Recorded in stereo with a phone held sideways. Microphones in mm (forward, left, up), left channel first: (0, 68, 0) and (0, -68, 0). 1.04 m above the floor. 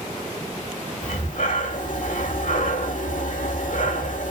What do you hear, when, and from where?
1.0 s breathing: 70° left (ahead or behind), 3 m